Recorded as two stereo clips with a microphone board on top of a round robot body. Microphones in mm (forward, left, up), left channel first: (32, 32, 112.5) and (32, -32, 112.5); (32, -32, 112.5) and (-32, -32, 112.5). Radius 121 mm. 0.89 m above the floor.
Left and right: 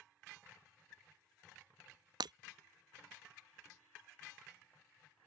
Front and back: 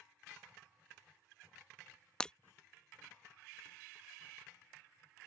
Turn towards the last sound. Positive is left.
turn(degrees=-75)